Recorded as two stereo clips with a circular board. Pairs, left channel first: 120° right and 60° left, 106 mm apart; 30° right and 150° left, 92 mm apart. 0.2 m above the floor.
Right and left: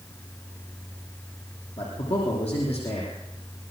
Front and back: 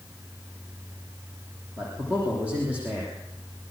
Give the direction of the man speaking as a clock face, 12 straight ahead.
4 o'clock.